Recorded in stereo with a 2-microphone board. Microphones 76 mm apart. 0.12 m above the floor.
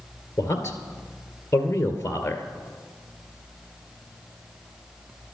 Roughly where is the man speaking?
Left.